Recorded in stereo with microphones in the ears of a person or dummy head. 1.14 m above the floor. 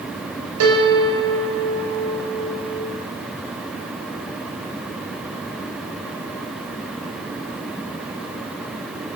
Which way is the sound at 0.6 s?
75° right (ahead or behind).